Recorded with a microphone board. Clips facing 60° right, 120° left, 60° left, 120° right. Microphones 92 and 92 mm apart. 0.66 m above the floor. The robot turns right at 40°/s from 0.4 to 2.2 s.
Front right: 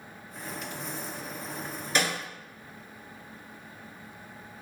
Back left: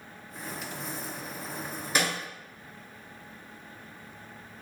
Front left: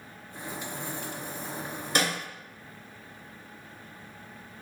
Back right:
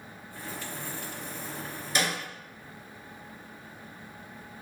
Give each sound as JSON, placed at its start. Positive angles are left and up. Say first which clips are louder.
{"t": 1.9, "sound": "a snare drum", "louder": "even, front left 2 dB", "azimuth_deg": 40, "distance_m": 1.5}